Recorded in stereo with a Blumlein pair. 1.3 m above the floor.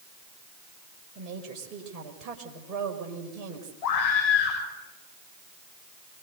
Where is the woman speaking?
30° right, 5 m.